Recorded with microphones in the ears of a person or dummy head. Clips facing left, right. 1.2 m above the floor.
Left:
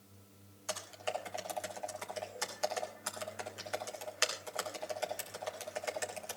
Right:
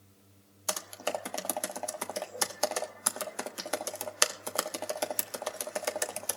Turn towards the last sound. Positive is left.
turn(degrees=-65)  # may be behind; listen again after turning